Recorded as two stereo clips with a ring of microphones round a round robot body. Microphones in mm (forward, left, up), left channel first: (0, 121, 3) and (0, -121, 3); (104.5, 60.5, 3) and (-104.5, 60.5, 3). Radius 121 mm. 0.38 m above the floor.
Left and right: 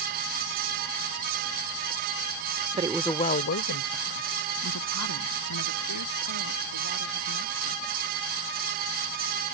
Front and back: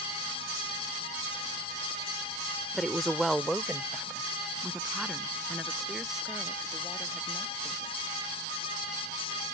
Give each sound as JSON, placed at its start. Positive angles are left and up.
{"t": 2.7, "sound": "a woman speaking", "azimuth_deg": -85}